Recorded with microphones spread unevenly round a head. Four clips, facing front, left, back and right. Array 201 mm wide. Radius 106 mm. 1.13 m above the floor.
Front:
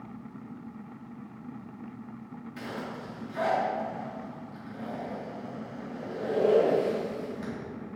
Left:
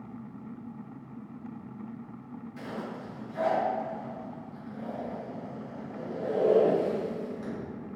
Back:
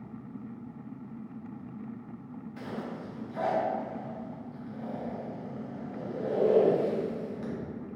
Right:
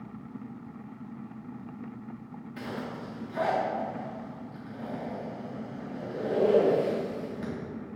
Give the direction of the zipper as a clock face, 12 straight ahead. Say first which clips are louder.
Right 2 dB, even; 2 o'clock.